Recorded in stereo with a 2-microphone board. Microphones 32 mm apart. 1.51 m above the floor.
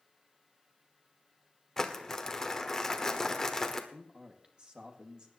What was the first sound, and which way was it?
Crumpling, 15° left (ahead or behind).